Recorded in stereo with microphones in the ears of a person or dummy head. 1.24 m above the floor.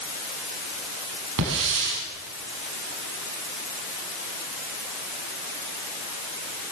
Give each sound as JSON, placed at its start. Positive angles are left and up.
{"t": 1.4, "sound": "a hiss", "side_deg": -75, "distance_m": 7.5}